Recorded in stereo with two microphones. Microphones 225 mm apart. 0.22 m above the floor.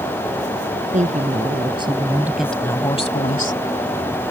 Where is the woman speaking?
35° right (ahead or behind); by 3.6 s 40° left (ahead or behind).